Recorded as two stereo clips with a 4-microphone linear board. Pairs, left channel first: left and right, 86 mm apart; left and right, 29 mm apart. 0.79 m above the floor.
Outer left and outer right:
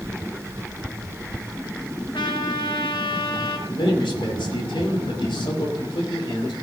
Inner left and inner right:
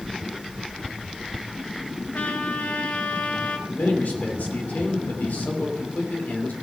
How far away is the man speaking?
About 2.5 m.